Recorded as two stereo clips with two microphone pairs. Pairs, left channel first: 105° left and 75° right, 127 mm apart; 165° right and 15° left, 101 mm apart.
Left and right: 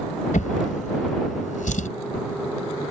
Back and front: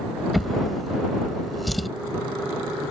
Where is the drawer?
105° left.